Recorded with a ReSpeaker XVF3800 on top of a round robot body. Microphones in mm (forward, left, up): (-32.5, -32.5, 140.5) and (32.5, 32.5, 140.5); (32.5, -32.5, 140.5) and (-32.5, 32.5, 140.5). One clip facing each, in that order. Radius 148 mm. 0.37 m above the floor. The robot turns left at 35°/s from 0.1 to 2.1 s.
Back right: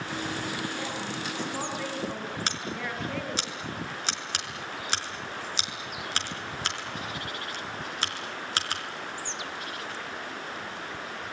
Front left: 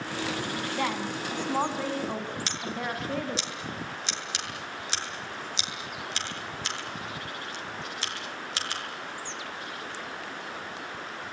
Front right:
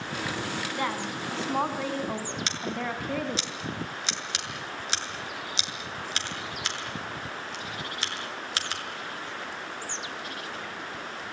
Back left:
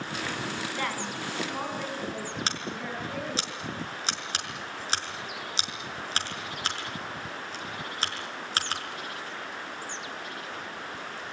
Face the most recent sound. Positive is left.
turn(degrees=-175)